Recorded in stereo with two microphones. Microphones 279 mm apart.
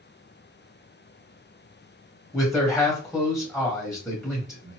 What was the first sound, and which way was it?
A man speaking, centre (ahead or behind).